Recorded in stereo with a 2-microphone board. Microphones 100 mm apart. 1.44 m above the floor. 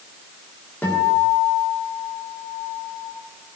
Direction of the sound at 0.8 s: 15° left (ahead or behind).